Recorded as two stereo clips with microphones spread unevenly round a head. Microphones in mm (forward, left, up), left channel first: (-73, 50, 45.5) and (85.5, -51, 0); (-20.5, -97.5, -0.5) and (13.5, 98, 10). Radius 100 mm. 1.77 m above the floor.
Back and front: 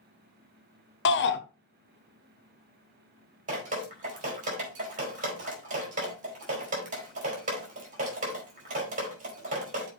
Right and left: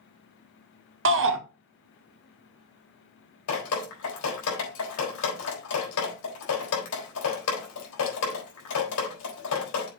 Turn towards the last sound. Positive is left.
turn(degrees=-90)